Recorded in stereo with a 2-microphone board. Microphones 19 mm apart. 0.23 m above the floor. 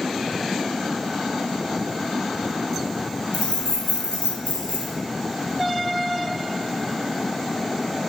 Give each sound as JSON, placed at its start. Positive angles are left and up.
{"t": 3.3, "sound": "keys jangling", "side_deg": 75, "distance_m": 2.5}